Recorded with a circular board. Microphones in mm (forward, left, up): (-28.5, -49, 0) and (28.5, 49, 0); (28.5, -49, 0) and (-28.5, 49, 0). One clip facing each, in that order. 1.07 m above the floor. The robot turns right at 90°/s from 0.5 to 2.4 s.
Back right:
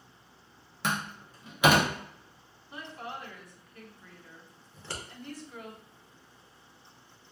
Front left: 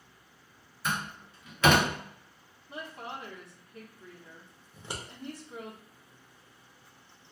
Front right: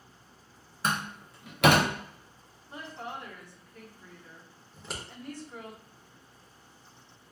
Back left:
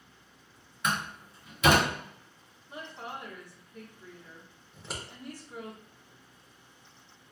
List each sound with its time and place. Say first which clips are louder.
0.8 s a door slam: back right 1 dB, front right 1 dB; 115° right, 0.7 m; by 1.9 s 20° right, 0.7 m
2.7 s a woman speaking: even, front right 1 dB; 45° left, 1.3 m
4.7 s scissors: front left 1 dB, even; 35° left, 0.7 m